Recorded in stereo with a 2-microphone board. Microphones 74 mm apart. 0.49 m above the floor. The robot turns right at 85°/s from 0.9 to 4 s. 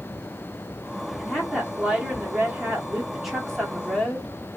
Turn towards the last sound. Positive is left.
turn(degrees=20)  # may be behind; listen again after turning